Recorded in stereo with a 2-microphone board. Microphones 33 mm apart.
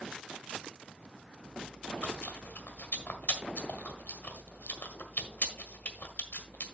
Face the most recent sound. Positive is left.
turn(degrees=55)  # may be behind; listen again after turning